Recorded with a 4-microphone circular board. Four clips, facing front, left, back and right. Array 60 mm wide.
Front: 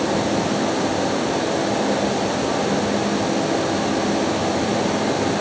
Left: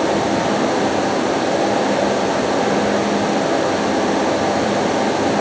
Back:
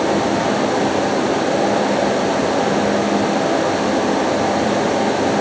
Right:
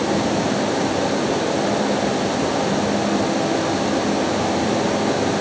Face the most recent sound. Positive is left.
No sound to turn to.